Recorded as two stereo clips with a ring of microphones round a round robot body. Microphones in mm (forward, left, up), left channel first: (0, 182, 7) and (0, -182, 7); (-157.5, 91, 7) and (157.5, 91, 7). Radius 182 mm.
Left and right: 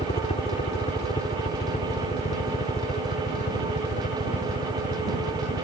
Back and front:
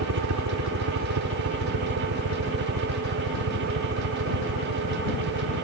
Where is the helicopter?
20° left.